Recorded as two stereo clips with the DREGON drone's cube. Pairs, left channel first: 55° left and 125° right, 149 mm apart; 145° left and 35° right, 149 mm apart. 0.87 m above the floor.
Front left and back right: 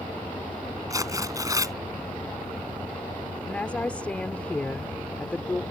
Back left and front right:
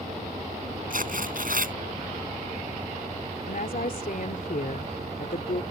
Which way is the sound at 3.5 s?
135° left.